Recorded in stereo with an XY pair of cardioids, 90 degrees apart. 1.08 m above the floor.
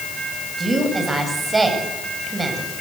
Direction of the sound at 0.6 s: 25° right.